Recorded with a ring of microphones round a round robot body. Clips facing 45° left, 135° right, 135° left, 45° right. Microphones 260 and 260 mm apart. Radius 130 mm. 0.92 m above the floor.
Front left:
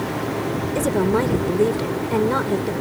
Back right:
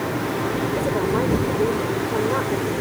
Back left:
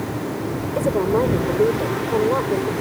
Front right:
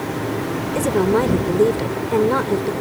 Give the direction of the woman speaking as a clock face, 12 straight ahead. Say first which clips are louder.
Front left 5 dB, front right 2 dB; 12 o'clock.